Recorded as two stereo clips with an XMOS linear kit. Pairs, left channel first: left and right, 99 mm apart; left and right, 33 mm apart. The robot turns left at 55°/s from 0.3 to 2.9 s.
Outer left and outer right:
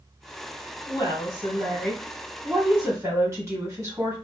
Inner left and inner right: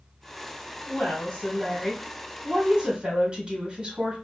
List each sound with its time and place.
0.9 s a woman speaking: 65° left, 1.9 m; by 4.2 s 45° right, 1.9 m